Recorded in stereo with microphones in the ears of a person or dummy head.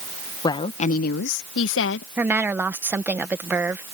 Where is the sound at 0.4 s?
25° left (ahead or behind); by 2.1 s 65° left (ahead or behind).